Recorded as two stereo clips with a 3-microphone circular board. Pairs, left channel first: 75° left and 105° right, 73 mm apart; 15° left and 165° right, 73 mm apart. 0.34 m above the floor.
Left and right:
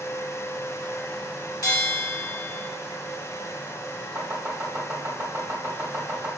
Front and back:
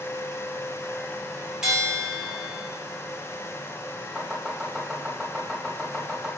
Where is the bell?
110° left, 0.8 m.